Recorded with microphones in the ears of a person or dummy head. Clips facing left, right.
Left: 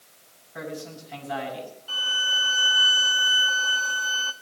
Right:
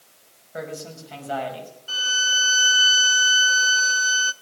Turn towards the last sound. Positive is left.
turn(degrees=-15)  # may be behind; listen again after turning